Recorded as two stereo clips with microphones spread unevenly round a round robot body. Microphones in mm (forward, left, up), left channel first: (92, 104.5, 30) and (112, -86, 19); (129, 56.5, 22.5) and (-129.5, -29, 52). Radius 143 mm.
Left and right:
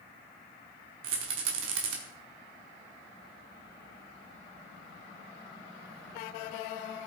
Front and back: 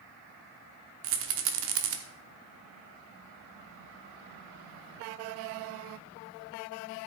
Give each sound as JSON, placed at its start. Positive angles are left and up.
{"t": 1.0, "sound": "a rattle", "azimuth_deg": -125, "distance_m": 0.9}